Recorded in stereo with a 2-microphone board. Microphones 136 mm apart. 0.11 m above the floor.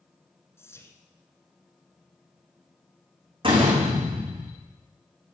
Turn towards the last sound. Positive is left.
turn(degrees=-40)  # may be behind; listen again after turning